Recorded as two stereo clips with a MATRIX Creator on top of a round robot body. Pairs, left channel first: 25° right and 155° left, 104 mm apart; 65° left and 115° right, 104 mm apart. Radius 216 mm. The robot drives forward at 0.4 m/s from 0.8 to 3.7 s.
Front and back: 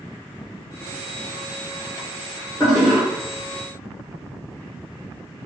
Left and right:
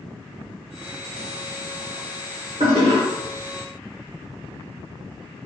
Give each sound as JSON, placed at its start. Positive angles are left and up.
{"t": 2.6, "sound": "a toilet flushing", "azimuth_deg": -125, "distance_m": 0.6}